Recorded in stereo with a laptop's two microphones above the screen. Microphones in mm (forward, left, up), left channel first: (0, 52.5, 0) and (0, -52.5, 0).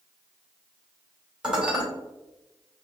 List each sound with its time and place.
1.4 s dishes clattering: 10° right (ahead or behind), 1.9 m